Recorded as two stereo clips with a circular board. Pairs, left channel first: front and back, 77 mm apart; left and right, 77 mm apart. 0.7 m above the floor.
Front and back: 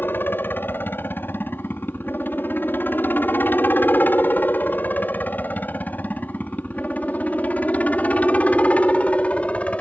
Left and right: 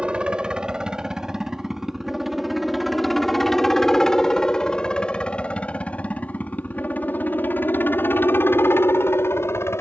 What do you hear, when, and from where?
0.0 s a helicopter: 25° right; by 9.8 s 65° left